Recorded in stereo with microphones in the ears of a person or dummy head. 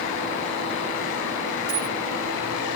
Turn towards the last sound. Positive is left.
turn(degrees=-85)